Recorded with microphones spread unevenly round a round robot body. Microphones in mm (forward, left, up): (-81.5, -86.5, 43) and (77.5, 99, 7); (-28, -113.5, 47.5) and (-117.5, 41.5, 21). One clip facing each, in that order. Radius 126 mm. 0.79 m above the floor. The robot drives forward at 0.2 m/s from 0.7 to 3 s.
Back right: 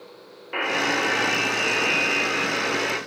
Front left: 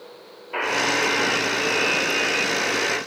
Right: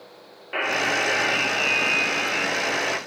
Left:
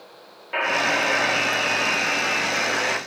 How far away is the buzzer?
About 1.4 m.